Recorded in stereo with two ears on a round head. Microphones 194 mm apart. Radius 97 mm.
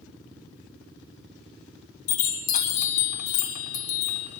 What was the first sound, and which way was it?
A chime, 80° left.